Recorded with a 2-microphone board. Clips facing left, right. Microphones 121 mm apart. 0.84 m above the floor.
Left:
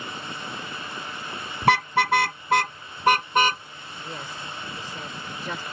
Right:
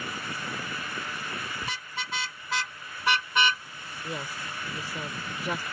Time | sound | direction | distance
1.6 | a car horn | 75° left (ahead or behind) | ?
4.0 | a woman speaking | 10° right (ahead or behind) | ?